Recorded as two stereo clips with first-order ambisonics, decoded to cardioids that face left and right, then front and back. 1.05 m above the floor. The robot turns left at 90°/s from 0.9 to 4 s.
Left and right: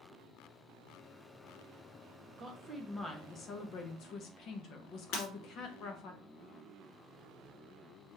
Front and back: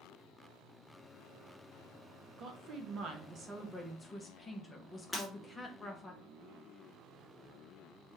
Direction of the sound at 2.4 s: 140° right.